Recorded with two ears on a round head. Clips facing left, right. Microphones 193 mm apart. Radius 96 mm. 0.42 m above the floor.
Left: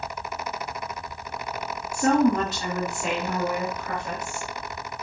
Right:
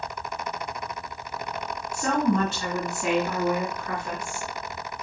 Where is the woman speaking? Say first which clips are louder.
Left 4 dB; 25° left (ahead or behind), 2.5 m; by 4.5 s 5° left (ahead or behind), 5 m.